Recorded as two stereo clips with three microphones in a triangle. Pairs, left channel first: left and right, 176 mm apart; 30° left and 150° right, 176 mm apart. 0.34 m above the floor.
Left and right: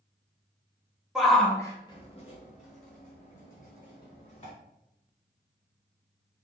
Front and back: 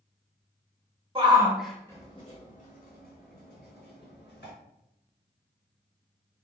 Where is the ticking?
No ticking in this recording.